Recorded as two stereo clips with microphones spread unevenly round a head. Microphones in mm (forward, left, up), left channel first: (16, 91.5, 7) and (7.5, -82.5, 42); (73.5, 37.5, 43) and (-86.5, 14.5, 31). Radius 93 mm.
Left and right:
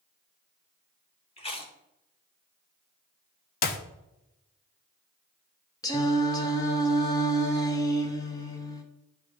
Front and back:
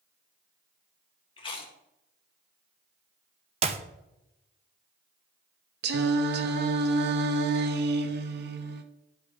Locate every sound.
1.4 s chewing: 35° left, 1.2 m
3.6 s a clap: 135° left, 0.7 m
5.8 s singing: 160° left, 0.7 m